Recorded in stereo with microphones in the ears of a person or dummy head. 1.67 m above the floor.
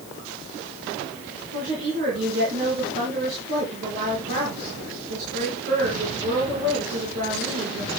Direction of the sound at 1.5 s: 50° right (ahead or behind).